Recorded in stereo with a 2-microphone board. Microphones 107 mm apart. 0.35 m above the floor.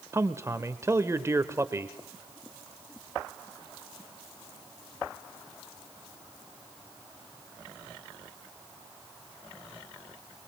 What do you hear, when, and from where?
0.1 s a man speaking: 25° right (ahead or behind), 1.0 m